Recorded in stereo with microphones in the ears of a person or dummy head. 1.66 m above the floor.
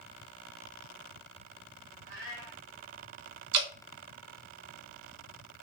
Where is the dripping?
65° right (ahead or behind), 1.1 m.